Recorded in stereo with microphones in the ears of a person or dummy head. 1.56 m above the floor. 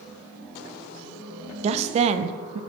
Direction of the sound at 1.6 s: 35° right (ahead or behind).